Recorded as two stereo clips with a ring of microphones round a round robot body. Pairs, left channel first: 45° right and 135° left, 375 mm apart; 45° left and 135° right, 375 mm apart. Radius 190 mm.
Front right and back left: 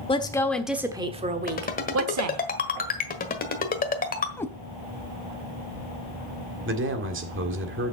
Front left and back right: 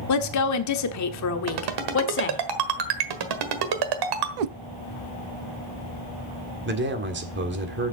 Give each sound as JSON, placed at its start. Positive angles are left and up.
{"t": 0.1, "sound": "a woman speaking", "azimuth_deg": 25, "distance_m": 1.3}
{"t": 1.5, "sound": "a ringtone", "azimuth_deg": -115, "distance_m": 1.4}
{"t": 4.4, "sound": "a cat meowing", "azimuth_deg": -130, "distance_m": 0.5}
{"t": 6.7, "sound": "a man speaking", "azimuth_deg": 175, "distance_m": 1.7}